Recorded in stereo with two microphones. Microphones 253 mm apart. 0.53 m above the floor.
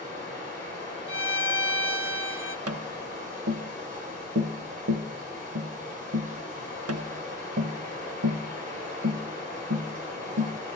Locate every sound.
0.0 s running water: 35° right (ahead or behind), 8 m
1.1 s a violin: 50° left (ahead or behind), 0.9 m
2.7 s tapping: 70° right (ahead or behind), 0.5 m